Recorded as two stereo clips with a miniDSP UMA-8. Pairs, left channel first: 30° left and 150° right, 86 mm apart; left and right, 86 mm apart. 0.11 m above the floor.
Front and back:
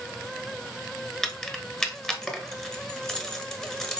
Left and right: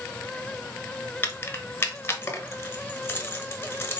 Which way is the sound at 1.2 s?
105° left.